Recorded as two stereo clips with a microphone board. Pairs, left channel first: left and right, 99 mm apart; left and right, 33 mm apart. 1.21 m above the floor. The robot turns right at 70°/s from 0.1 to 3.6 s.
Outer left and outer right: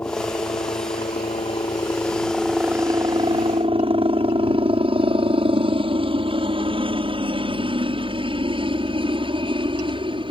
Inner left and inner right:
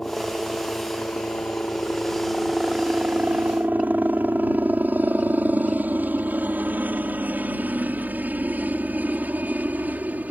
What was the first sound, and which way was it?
A helicopter, 20° left (ahead or behind).